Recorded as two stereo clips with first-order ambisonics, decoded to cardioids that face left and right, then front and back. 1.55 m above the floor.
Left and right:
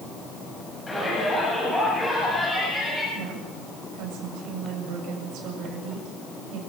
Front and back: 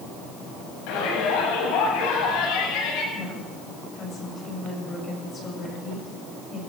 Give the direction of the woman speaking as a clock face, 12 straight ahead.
2 o'clock.